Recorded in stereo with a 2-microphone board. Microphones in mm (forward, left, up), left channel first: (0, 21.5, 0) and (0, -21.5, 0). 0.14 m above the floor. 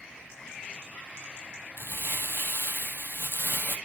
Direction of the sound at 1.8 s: 55° left (ahead or behind).